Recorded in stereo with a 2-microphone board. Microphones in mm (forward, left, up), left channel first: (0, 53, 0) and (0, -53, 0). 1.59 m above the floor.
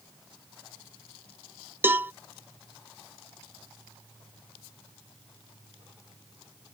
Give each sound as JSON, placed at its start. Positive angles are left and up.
{"t": 1.8, "sound": "a cowbell", "side_deg": -20}